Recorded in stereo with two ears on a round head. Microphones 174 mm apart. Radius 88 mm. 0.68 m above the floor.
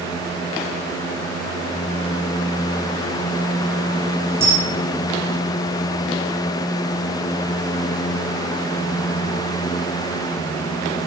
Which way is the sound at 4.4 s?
15° right (ahead or behind).